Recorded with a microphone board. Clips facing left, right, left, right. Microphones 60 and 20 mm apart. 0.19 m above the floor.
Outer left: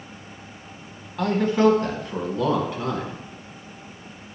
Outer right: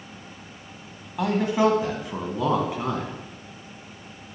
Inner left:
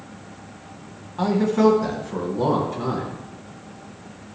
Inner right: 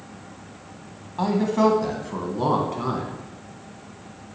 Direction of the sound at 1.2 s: 10° right (ahead or behind).